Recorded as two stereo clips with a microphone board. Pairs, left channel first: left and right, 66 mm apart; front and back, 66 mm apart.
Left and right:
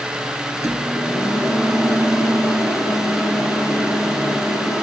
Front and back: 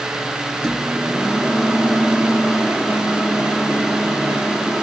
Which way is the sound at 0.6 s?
110° left.